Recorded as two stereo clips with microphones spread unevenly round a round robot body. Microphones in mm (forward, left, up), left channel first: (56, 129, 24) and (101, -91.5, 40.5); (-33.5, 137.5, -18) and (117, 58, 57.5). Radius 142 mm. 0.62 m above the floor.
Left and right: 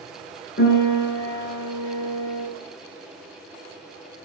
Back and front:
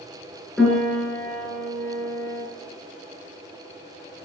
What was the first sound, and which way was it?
A piano, 60° left.